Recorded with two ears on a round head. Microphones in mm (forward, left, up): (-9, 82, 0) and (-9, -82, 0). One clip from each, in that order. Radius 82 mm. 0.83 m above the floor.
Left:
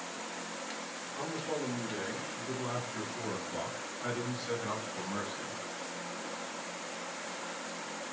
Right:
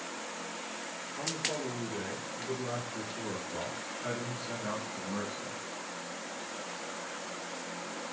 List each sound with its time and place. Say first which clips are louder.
1.2 s a man speaking: right 2 dB; 70° left (ahead or behind), 8.5 m; by 5.6 s 65° left (ahead or behind), 6 m